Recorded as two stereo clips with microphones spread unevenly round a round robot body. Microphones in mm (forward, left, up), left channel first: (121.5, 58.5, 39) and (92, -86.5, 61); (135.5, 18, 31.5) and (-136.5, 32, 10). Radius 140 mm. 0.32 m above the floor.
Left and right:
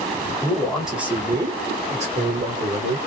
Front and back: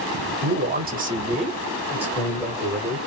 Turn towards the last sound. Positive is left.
turn(degrees=-85)